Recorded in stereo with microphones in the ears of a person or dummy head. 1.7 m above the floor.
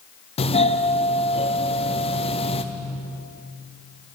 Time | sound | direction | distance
0.4 | a doorbell | 35° left (ahead or behind) | 1.3 m